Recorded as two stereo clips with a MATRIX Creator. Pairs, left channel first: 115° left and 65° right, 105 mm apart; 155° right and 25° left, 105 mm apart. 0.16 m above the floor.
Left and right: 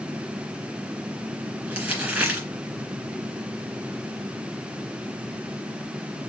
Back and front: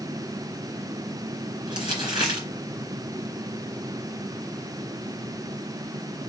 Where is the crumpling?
10° left, 2 m.